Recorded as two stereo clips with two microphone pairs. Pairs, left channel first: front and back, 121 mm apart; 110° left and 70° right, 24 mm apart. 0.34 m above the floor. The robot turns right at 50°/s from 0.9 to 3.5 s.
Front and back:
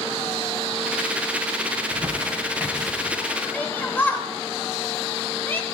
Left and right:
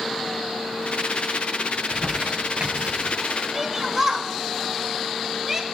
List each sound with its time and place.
1.7 s crumpling: 150° right, 1.8 m; by 3.1 s 80° right, 1.8 m
3.5 s a shout: 30° right, 0.9 m